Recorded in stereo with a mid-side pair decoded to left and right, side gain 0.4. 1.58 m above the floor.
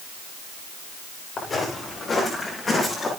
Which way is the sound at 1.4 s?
45° left.